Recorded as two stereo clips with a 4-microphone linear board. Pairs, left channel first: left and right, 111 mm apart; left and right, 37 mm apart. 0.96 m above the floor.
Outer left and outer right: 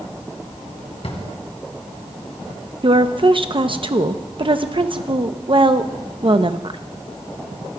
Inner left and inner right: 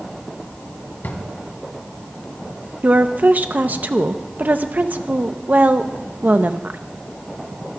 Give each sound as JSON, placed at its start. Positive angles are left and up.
{"t": 1.0, "sound": "a drawer", "side_deg": 65, "distance_m": 2.0}
{"t": 2.8, "sound": "a woman speaking", "side_deg": -50, "distance_m": 0.8}